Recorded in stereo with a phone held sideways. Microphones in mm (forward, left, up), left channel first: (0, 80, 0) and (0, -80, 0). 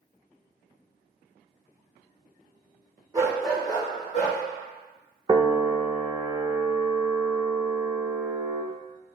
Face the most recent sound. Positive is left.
turn(degrees=-25)  # may be behind; listen again after turning